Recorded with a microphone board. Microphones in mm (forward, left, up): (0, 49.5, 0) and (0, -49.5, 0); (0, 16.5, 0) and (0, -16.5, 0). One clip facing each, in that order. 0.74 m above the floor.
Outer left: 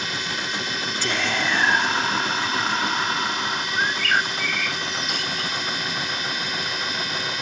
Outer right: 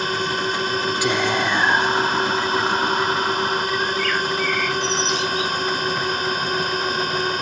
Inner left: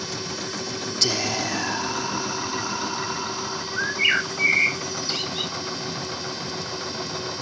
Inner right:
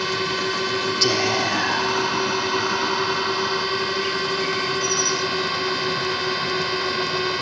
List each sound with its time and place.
0.0 s a drone: 45° right (ahead or behind)
1.0 s whispering: 15° right (ahead or behind)
3.8 s a bird: 50° left (ahead or behind)